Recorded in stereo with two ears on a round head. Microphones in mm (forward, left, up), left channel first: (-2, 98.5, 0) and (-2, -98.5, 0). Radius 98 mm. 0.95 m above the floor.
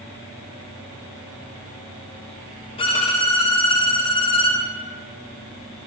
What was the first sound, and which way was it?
A violin, 25° left (ahead or behind).